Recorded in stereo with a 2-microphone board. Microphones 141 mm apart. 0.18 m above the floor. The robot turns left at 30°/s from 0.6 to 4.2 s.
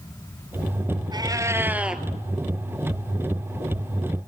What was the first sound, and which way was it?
A cat meowing, 30° right (ahead or behind).